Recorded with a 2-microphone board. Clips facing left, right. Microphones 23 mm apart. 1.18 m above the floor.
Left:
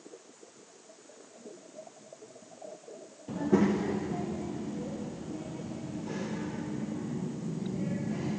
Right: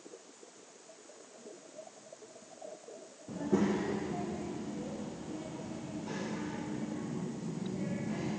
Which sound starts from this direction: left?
A child speaking, at 3.3 s.